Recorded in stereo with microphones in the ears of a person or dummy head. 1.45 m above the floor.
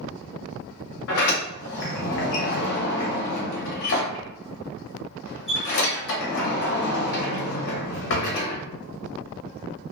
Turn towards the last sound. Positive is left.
turn(degrees=60)  # may be behind; listen again after turning